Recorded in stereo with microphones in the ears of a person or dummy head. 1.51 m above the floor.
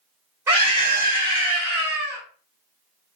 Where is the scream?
10° right (ahead or behind), 2.5 m.